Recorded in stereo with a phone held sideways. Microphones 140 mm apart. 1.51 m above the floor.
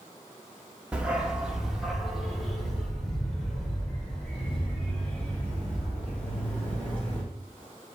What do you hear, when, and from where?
0.9 s a dog barking: 10° right (ahead or behind), 1.2 m; by 7.2 s 10° left (ahead or behind), 4 m